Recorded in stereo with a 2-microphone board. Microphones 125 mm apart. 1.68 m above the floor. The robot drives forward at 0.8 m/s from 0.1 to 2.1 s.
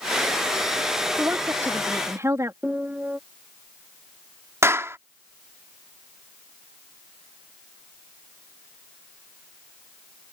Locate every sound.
1.2 s a woman speaking: 20° right (ahead or behind); by 2.5 s 25° right (ahead or behind)
2.6 s a piano: 10° right (ahead or behind)
4.6 s a clap: 20° right (ahead or behind)